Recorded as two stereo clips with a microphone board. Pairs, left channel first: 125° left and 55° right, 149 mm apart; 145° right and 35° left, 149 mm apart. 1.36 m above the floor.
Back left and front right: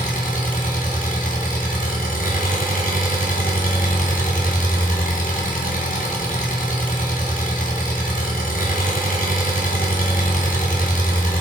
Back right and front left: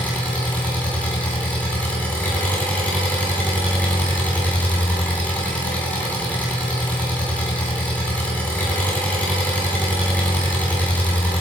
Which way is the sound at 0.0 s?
135° left.